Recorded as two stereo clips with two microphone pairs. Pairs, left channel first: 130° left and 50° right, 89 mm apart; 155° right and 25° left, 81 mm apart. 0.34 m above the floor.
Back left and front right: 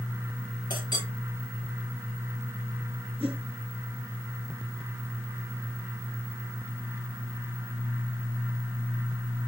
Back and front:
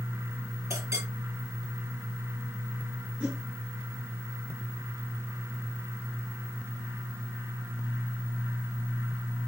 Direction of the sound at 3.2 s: 45° right.